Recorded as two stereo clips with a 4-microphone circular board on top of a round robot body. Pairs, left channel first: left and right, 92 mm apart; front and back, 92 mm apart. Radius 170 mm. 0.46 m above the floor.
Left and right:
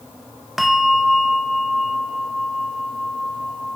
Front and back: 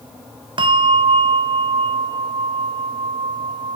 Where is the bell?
Straight behind, 0.9 m.